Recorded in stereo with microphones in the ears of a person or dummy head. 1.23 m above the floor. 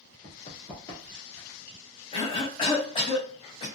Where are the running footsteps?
30° left (ahead or behind), 1.5 m; by 1.6 s centre (ahead or behind), 1.3 m.